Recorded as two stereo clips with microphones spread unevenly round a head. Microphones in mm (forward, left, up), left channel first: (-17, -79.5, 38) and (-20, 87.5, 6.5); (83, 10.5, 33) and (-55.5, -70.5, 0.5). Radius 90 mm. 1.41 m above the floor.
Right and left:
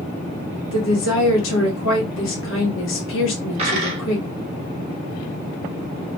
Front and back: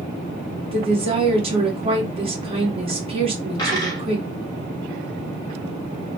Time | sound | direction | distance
0.7 | a woman speaking | 95° right | 1.2 m
3.6 | a dropped coin | 45° left | 0.8 m